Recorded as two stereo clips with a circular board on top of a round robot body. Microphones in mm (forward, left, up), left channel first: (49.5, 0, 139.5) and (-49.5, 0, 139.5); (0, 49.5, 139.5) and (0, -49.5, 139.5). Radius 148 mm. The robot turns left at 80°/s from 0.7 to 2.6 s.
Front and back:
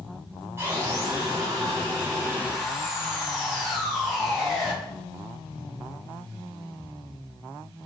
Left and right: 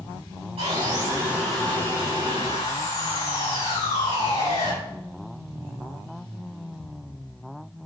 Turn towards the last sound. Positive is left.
turn(degrees=95)